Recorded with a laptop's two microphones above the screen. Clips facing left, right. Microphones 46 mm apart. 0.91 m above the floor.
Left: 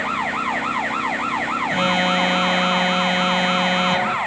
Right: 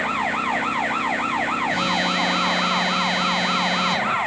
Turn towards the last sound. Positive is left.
turn(degrees=35)  # may be behind; listen again after turning